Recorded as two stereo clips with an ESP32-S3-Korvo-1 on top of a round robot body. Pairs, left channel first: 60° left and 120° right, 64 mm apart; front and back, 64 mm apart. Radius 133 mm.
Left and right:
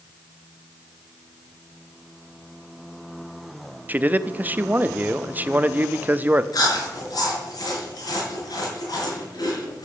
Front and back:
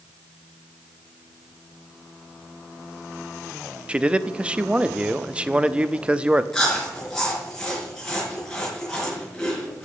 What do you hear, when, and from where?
3.9 s a man speaking: 130° right, 0.9 m
6.5 s chewing: 80° left, 6 m